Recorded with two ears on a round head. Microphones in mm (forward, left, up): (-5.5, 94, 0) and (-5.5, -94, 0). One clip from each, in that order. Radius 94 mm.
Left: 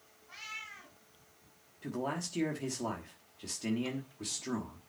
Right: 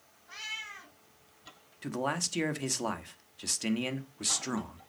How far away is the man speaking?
About 1.1 m.